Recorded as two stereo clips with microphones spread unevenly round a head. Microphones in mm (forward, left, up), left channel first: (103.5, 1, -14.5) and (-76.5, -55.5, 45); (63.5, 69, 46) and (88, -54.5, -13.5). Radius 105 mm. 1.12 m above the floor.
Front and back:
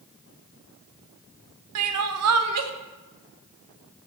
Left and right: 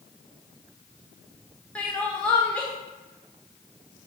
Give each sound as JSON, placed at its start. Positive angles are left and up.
{"t": 1.8, "sound": "crying", "azimuth_deg": -175, "distance_m": 0.7}